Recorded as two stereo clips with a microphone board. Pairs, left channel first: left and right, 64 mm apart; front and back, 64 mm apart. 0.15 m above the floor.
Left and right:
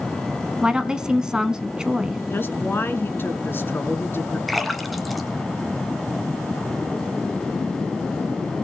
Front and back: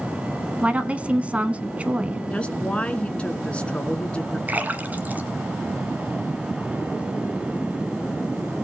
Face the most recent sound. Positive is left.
turn(degrees=180)